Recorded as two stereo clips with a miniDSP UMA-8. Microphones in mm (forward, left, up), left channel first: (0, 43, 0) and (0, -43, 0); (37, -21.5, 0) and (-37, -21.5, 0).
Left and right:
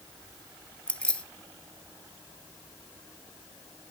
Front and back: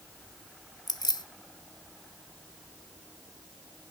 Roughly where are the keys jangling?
Ahead.